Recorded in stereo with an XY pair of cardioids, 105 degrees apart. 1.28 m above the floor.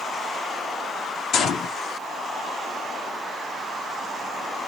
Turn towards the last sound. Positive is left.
turn(degrees=60)